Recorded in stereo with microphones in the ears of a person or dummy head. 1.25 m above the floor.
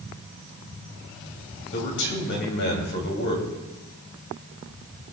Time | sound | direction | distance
1.7 | a man speaking | 55° left (ahead or behind) | 3 m